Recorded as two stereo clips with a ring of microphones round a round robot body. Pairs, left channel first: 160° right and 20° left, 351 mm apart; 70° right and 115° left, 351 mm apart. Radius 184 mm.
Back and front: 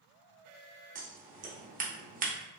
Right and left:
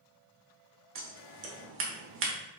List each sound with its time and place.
0.9 s scissors: 80° left, 1.0 m